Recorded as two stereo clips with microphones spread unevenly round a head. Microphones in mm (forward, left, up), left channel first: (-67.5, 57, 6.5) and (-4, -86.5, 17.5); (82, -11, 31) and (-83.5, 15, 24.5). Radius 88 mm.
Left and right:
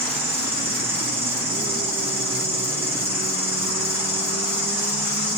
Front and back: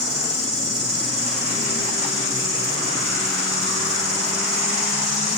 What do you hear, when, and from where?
0.0 s an insect: 115° right, 5.5 m